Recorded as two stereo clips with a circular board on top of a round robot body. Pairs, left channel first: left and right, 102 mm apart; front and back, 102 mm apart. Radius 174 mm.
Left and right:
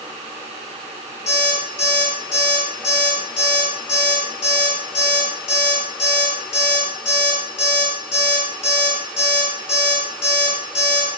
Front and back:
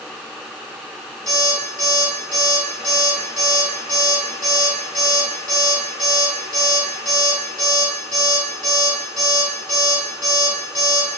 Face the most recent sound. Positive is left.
turn(degrees=80)